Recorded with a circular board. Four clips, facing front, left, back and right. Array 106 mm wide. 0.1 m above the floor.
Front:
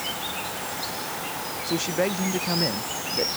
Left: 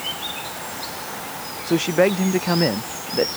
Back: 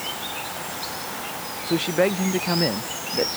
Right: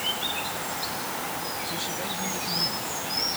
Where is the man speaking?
105° left.